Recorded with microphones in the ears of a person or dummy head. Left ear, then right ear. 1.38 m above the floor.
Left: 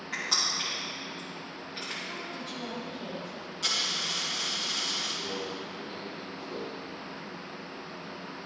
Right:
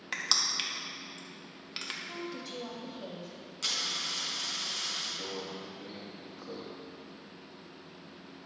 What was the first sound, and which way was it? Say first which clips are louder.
Crushing: left 1 dB; 55° right (ahead or behind).